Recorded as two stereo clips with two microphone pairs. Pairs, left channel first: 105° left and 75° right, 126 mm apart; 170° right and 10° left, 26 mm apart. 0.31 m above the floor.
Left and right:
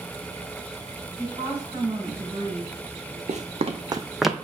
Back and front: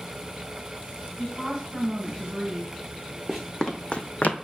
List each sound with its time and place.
1.2 s a woman speaking: 110° right, 2.5 m; by 3.2 s 95° right, 1.5 m
3.3 s running footsteps: 85° right, 0.9 m; by 4.3 s 175° right, 0.6 m